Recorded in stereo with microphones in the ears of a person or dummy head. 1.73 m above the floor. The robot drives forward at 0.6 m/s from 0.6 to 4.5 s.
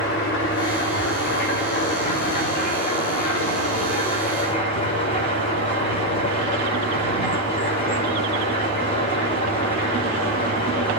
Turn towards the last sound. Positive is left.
turn(degrees=40)  # may be behind; listen again after turning